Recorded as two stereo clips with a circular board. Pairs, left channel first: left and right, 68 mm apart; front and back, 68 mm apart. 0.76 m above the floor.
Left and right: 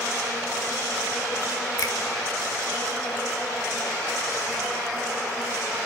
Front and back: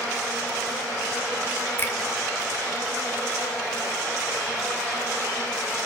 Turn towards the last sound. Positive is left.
turn(degrees=55)